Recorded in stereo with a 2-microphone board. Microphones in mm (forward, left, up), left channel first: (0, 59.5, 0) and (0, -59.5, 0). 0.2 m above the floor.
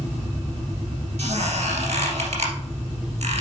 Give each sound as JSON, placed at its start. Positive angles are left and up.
{"t": 1.2, "sound": "a squeak", "side_deg": -60, "distance_m": 2.0}